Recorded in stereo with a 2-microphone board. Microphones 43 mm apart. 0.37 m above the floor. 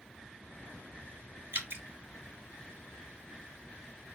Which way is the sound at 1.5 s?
55° right (ahead or behind).